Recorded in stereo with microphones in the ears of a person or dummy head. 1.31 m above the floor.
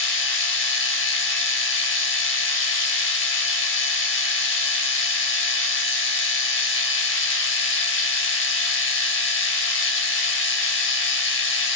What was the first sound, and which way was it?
A machine running, 60° left (ahead or behind).